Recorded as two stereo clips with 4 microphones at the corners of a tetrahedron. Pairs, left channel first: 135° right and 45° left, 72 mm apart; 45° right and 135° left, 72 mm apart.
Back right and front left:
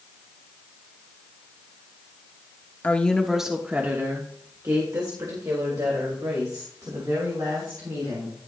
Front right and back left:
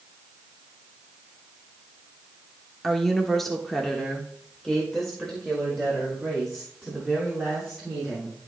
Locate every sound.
2.8 s a woman speaking: 130° right, 0.9 m; by 8.4 s 40° left, 4 m